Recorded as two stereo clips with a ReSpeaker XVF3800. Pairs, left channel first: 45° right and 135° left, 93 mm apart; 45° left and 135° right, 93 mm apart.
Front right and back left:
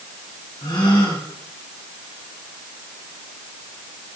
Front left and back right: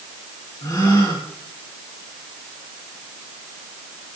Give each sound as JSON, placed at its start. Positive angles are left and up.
{"t": 0.6, "sound": "a gasp", "azimuth_deg": -5, "distance_m": 3.0}